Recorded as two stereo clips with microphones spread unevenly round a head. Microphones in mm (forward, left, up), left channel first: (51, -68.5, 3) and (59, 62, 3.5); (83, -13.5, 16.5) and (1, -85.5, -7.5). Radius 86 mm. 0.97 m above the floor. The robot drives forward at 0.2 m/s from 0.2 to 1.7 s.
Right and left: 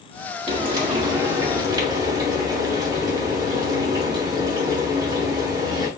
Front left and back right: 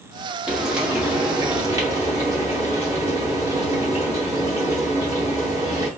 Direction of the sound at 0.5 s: 120° left.